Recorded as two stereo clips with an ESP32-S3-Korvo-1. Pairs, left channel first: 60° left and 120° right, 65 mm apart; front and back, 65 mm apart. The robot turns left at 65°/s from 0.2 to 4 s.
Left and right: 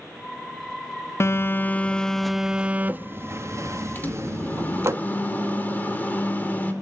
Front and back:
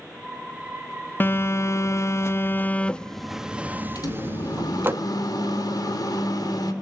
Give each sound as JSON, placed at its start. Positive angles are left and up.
{"t": 1.2, "sound": "a phone buzzing", "azimuth_deg": 45, "distance_m": 0.5}
{"t": 4.0, "sound": "a microwave", "azimuth_deg": 0, "distance_m": 2.5}